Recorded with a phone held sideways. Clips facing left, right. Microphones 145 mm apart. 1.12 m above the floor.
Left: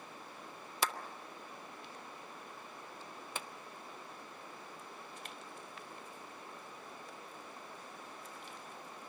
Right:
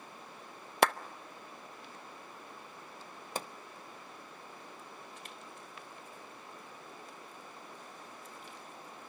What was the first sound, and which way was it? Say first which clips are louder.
A clap: right 10 dB; 65° right (ahead or behind).